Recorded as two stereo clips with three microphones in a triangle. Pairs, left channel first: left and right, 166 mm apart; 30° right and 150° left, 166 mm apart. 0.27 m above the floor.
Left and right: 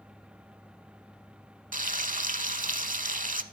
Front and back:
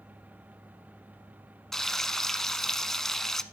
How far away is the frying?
About 0.5 m.